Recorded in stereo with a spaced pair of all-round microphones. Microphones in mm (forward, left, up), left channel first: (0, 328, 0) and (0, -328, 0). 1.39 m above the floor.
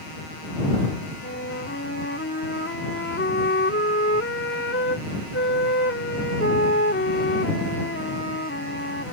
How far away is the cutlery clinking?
No cutlery clinking in this recording.